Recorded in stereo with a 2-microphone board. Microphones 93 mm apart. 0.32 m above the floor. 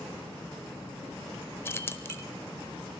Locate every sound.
1.6 s keys jangling: 25° left (ahead or behind), 0.6 m